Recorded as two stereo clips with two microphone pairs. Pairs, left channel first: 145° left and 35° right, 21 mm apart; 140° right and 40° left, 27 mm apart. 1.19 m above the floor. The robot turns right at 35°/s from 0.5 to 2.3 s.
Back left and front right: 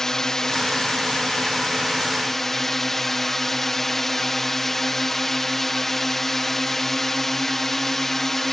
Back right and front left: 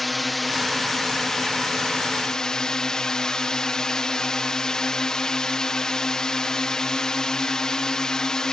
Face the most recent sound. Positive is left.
turn(degrees=-160)